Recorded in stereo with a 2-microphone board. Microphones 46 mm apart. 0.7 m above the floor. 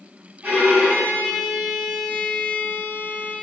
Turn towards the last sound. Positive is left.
turn(degrees=-35)  # may be behind; listen again after turning